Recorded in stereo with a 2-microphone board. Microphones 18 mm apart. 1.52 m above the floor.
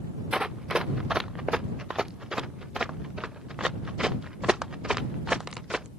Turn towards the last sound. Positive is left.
turn(degrees=-40)  # may be behind; listen again after turning